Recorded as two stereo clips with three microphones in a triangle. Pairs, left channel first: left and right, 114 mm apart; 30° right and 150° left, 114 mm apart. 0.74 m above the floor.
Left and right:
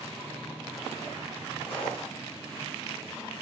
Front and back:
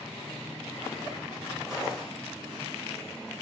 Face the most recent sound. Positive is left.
turn(degrees=65)